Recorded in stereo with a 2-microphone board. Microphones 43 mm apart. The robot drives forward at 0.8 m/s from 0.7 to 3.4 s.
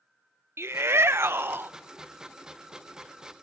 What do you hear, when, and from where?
0.6 s a shout: 80° right, 1.0 m; by 1.7 s 55° right (ahead or behind), 1.2 m